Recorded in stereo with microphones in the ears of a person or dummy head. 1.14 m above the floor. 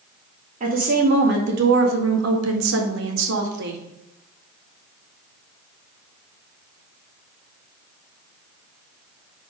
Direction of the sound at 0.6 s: 35° right (ahead or behind).